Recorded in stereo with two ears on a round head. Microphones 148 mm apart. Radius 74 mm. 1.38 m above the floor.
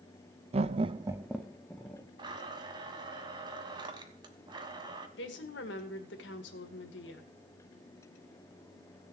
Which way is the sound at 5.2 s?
75° left (ahead or behind).